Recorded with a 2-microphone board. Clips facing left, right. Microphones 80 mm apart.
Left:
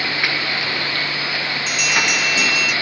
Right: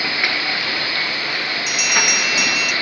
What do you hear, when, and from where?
1.7 s a bell: 10° right (ahead or behind), 0.6 m